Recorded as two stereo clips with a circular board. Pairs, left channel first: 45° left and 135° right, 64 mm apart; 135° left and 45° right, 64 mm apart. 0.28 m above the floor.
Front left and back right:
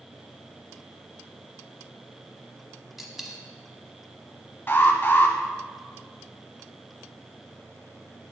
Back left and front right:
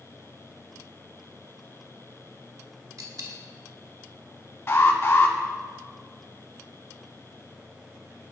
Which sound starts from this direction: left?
An alarm, at 4.7 s.